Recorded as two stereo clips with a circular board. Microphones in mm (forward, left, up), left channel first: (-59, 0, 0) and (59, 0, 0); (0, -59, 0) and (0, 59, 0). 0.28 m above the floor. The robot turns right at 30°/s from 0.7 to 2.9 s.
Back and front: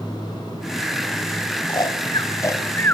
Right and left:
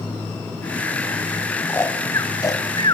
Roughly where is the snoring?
Behind right.